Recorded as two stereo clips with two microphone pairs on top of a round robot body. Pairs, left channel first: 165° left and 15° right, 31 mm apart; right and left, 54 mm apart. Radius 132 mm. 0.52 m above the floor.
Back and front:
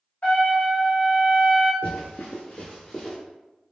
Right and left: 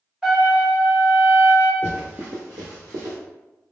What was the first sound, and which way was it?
A trumpet, 160° left.